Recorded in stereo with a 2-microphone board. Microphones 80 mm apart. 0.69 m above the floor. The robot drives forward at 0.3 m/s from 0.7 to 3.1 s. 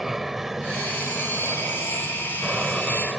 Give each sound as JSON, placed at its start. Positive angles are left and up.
{"t": 0.0, "sound": "an aircraft", "side_deg": -5}